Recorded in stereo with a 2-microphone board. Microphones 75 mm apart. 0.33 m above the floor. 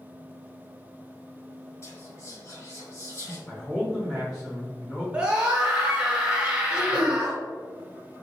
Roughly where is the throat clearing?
Left.